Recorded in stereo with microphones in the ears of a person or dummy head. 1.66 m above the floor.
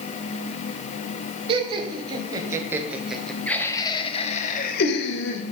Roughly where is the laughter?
Right.